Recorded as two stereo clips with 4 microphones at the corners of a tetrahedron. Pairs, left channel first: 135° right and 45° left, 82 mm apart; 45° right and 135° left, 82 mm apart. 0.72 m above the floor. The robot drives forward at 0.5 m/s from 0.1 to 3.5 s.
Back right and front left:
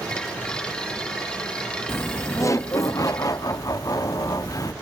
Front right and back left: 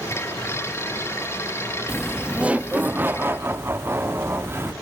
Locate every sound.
1.9 s laughter: 140° right, 0.7 m; by 4.7 s 170° right, 1.2 m